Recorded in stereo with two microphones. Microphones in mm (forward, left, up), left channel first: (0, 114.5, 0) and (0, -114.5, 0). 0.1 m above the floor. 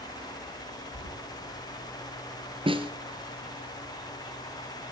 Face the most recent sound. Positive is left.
turn(degrees=-25)  # may be behind; listen again after turning